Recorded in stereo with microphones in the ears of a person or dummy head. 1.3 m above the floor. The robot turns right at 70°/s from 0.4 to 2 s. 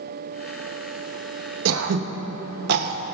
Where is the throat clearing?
85° right, 0.7 m; by 3.0 s 60° right (ahead or behind), 0.7 m.